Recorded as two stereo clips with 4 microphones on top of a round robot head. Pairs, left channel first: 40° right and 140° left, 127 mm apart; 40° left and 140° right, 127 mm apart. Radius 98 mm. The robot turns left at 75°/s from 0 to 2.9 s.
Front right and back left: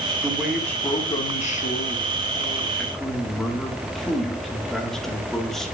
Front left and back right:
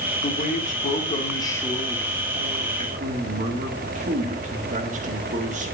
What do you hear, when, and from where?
0.2 s a man speaking: 75° left, 1.9 m; by 5.8 s 130° right, 1.9 m